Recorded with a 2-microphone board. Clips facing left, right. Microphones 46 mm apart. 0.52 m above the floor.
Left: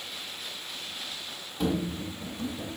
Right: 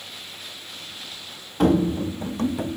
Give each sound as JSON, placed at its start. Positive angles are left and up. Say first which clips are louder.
{"t": 1.6, "sound": "running footsteps", "louder": "right 10 dB", "side_deg": -55, "distance_m": 0.9}